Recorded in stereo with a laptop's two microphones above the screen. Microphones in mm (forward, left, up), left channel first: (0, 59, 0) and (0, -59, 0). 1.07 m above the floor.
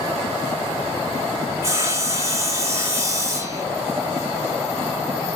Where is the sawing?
25° right (ahead or behind), 0.8 m.